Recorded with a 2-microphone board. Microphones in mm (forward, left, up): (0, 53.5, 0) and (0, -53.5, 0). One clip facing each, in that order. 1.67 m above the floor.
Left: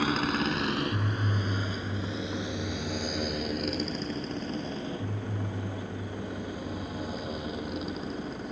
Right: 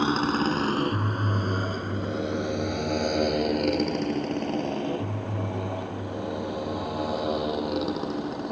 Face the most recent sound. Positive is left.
turn(degrees=-75)  # may be behind; listen again after turning